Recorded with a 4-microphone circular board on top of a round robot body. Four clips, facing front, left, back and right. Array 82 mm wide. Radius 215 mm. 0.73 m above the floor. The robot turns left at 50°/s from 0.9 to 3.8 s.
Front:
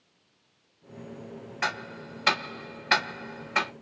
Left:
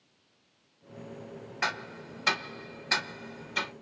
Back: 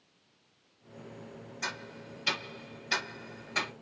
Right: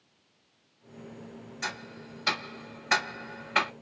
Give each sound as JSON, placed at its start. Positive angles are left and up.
{"t": 1.6, "sound": "ticking", "azimuth_deg": 40, "distance_m": 0.6}